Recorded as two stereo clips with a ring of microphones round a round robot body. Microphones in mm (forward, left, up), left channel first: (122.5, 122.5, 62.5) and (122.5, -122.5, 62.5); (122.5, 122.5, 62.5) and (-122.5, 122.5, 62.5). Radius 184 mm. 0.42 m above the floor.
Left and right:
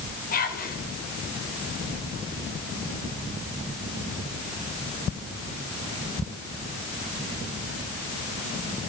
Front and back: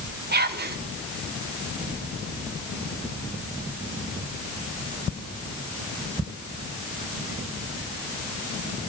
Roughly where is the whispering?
Behind left.